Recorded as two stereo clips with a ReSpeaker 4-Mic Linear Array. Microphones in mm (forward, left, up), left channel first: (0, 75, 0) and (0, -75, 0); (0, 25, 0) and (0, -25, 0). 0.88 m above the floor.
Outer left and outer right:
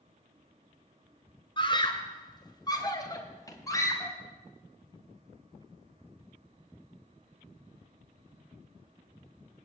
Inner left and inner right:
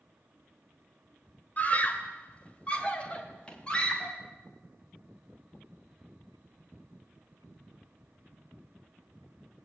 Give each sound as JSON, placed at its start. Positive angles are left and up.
{"t": 1.6, "sound": "a scream", "side_deg": 35, "distance_m": 3.0}